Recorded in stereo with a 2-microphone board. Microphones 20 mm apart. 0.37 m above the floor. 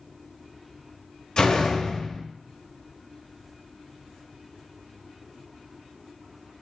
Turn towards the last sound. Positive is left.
turn(degrees=50)  # may be behind; listen again after turning